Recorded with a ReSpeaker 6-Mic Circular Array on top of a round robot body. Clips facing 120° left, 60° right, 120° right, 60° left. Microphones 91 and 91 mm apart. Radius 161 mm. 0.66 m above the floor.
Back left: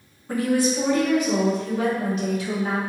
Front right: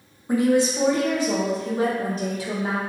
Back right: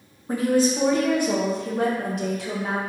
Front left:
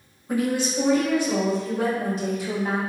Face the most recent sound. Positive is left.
turn(degrees=-110)